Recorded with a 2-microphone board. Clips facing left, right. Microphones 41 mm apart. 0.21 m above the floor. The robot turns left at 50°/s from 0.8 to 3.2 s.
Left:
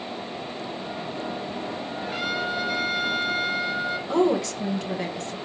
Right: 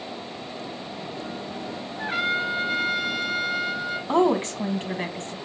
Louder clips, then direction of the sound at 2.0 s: Right 4 dB; 120° right.